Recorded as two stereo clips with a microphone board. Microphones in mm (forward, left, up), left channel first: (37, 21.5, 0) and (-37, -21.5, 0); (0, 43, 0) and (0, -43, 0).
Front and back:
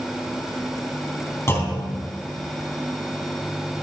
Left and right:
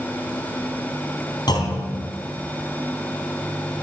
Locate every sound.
1.5 s a clunk: 85° left, 2.5 m